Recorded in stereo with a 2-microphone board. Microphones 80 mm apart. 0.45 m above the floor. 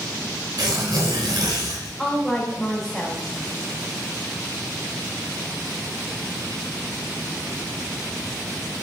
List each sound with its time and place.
0.6 s tearing paper: 70° right (ahead or behind), 3 m
2.0 s a woman speaking: 5° left (ahead or behind), 2.0 m